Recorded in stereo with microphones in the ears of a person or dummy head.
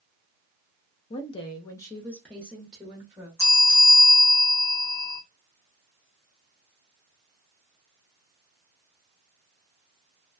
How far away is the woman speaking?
About 0.5 m.